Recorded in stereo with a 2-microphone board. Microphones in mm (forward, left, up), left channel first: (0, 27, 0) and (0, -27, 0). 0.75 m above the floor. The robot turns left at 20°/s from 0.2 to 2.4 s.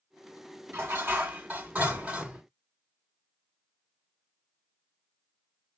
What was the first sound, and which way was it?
Dishes clattering, 130° right.